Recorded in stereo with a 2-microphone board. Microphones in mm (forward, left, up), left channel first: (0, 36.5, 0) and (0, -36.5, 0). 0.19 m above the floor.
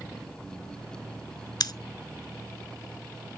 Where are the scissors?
70° left (ahead or behind), 0.6 m.